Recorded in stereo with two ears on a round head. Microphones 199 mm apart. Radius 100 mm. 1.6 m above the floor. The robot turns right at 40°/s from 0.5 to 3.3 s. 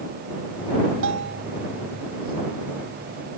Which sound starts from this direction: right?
A bell, at 1.0 s.